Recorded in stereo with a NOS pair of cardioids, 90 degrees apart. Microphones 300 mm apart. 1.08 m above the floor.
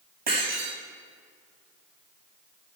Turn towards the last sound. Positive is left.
turn(degrees=-35)